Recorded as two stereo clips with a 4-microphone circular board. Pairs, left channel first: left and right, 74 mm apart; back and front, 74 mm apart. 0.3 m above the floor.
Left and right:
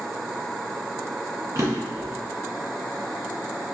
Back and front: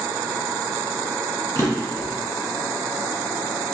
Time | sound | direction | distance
1.6 | a drawer | 135° right | 1.7 m